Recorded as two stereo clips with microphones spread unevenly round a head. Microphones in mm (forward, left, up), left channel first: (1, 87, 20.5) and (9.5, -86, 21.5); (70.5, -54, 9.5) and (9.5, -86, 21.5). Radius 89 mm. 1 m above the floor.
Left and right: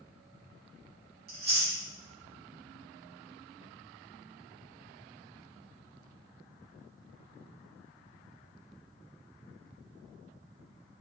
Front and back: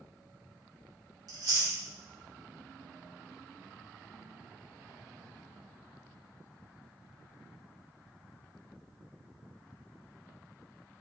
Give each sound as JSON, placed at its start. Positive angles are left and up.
{"t": 1.3, "sound": "chewing", "azimuth_deg": -125, "distance_m": 1.6}